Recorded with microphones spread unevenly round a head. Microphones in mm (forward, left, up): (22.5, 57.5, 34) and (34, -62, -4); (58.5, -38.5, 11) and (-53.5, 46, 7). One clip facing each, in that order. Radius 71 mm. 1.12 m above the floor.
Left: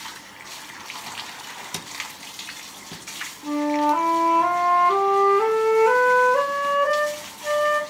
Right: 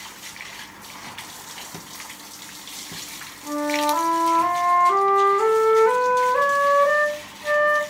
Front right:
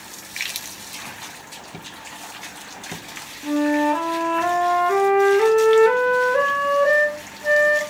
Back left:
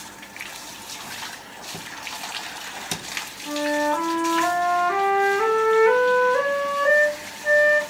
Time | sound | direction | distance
3.4 | a flute | 10° left | 0.5 m